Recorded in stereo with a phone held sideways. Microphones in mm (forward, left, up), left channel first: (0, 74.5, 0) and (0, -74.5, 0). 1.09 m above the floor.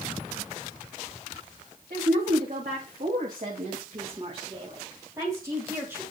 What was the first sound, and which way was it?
A woman speaking, 75° right (ahead or behind).